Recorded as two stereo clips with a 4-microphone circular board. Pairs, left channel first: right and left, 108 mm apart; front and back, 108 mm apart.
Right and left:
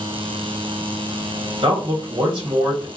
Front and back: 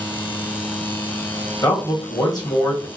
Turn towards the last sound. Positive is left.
turn(degrees=55)